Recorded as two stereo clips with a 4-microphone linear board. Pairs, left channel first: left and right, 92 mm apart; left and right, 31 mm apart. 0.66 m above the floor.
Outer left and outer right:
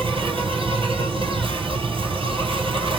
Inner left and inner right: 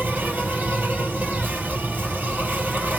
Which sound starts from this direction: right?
An insect, at 0.0 s.